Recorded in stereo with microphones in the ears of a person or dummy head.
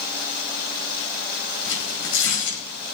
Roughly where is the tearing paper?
Left.